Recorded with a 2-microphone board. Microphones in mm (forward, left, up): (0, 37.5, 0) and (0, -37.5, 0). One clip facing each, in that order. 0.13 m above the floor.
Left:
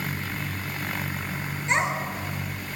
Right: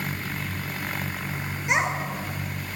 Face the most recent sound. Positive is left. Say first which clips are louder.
# even
turn(degrees=-10)  # may be behind; listen again after turning